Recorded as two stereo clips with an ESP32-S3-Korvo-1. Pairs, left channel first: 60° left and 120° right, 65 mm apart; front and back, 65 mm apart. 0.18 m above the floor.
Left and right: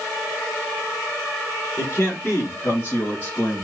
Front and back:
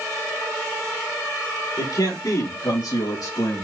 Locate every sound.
1.8 s a man speaking: 5° left, 5.5 m; by 3.6 s 5° right, 4 m